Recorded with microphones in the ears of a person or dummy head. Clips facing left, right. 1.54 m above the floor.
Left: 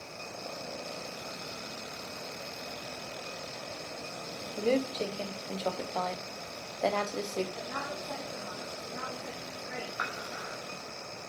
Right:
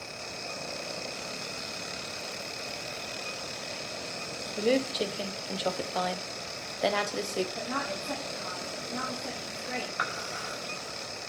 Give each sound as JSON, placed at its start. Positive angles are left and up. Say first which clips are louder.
{"t": 4.6, "sound": "a woman speaking", "louder": "right 2 dB", "side_deg": -10, "distance_m": 0.9}
{"t": 7.5, "sound": "a woman speaking", "louder": "right 4 dB", "side_deg": -55, "distance_m": 3.5}
{"t": 10.0, "sound": "dishes clattering", "louder": "right 2 dB", "side_deg": -40, "distance_m": 5.0}